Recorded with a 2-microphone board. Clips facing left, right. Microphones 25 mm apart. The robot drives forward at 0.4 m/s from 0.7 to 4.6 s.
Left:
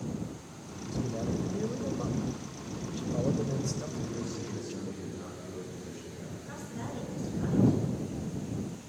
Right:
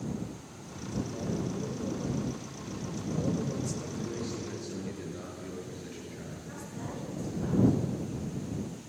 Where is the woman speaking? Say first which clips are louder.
Left 1 dB; 20° left (ahead or behind), 6 m.